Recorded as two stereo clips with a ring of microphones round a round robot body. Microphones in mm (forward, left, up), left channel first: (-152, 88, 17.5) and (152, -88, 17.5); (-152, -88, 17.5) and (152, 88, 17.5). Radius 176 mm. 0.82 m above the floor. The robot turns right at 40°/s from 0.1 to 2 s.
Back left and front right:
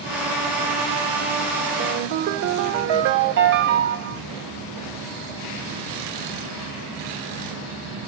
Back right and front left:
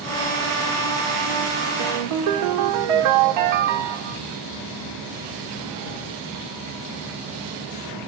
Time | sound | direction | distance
1.8 | a ringtone | 20° left | 1.3 m